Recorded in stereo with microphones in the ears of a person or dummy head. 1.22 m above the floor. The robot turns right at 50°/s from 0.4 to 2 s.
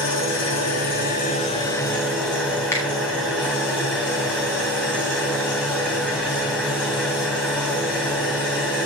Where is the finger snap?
10° left (ahead or behind), 2.5 m.